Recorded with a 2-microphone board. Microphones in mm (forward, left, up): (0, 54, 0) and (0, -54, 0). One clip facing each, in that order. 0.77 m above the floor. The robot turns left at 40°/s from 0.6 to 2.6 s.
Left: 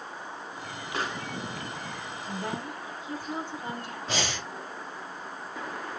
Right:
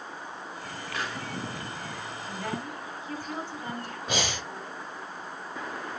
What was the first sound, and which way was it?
A pop, 35° left (ahead or behind).